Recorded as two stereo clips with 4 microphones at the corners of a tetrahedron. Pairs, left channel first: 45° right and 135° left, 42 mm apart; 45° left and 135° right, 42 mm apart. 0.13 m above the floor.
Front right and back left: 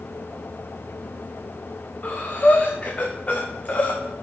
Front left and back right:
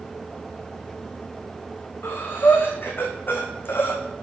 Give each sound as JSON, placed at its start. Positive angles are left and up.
{"t": 2.0, "sound": "breathing", "azimuth_deg": 15, "distance_m": 1.8}